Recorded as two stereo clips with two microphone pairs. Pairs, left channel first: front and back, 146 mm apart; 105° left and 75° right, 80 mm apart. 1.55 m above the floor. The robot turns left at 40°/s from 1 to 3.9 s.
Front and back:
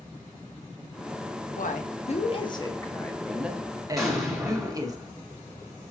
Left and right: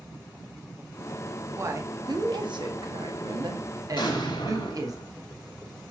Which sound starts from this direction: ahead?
A woman speaking, at 1.6 s.